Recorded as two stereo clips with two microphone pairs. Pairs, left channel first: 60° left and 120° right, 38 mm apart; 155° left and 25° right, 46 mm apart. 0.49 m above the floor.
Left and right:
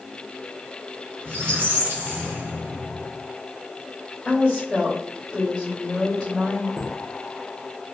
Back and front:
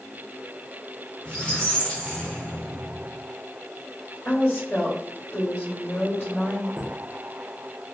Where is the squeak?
140° right, 1.2 m.